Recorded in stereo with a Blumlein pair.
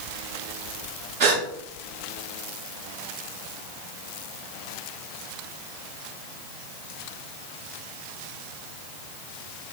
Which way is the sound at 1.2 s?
45° right.